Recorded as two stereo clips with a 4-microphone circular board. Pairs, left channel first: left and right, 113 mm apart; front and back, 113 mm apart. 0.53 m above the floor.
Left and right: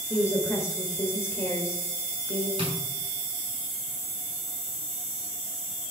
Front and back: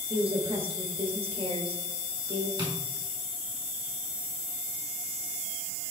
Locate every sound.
0.1 s a woman speaking: 155° left, 1.9 m
2.6 s tapping: 130° right, 5.5 m